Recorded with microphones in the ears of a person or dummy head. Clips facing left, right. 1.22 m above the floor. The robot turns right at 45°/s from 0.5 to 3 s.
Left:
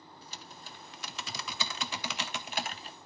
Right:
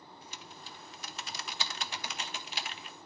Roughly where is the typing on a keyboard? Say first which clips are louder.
Left 1 dB; ahead left.